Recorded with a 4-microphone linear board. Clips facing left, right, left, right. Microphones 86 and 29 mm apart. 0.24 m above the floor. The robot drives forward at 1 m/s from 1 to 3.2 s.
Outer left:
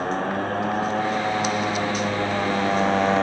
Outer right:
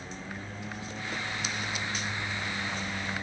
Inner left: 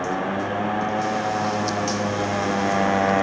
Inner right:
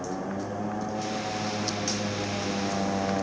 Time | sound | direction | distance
0.0 | a motorcycle | 70° left (ahead or behind) | ?